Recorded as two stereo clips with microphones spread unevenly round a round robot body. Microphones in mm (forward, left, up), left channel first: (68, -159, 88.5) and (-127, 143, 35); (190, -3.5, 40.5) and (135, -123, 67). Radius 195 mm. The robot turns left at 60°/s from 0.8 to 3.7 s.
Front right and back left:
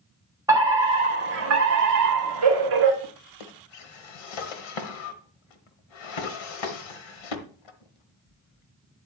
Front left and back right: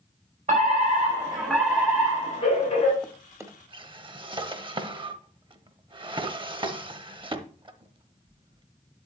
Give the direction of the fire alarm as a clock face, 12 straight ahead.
5 o'clock.